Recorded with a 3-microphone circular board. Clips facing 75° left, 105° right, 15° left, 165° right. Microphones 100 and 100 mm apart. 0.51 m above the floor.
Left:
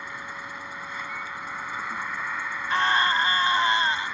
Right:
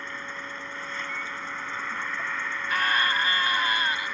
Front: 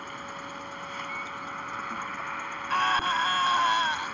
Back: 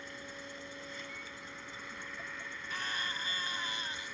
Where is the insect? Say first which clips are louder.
Even, front 8 dB; 5° right.